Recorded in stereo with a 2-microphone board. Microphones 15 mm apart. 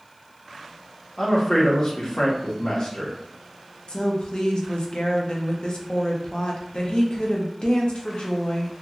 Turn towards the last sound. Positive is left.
turn(degrees=70)  # may be behind; listen again after turning